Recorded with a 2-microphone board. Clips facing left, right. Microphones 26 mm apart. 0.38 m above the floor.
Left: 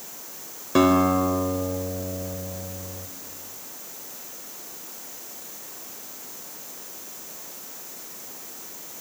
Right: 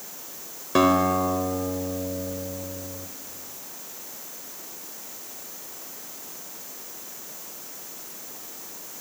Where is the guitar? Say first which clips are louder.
Left 1 dB; 5° right (ahead or behind), 1.9 m.